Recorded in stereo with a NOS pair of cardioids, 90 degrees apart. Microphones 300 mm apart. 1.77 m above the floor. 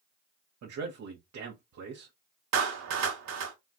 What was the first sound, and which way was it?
A man speaking, 60° right.